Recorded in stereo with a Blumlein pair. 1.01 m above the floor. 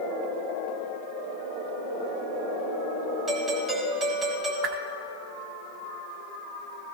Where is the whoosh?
35° right, 1.3 m.